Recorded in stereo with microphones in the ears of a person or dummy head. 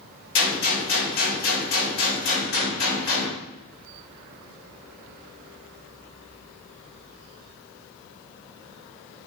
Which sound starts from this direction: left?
A gunshot, at 0.3 s.